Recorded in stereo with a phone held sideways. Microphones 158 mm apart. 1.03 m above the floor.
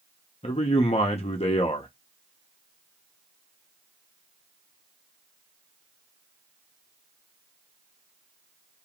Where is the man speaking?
40° left (ahead or behind), 1.0 m.